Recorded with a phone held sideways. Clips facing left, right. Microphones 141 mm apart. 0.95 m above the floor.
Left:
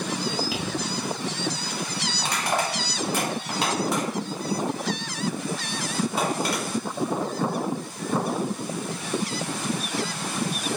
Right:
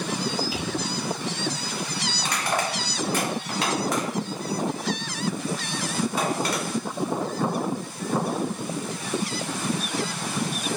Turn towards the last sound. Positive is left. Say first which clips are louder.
# left 1 dB
turn(degrees=25)  # may be behind; listen again after turning